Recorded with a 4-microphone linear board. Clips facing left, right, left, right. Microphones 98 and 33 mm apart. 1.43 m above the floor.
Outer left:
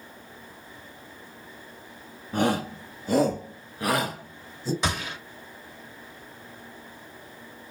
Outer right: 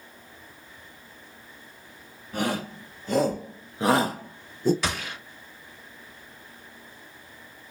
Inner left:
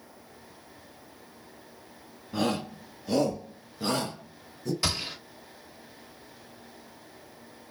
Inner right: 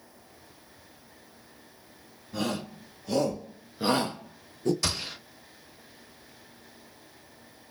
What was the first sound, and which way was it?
A shout, 30° left (ahead or behind).